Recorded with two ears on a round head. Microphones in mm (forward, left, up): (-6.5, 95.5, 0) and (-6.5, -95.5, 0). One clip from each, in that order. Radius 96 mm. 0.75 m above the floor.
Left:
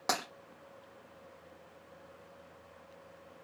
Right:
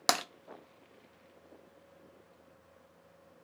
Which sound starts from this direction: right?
Tapping, at 0.1 s.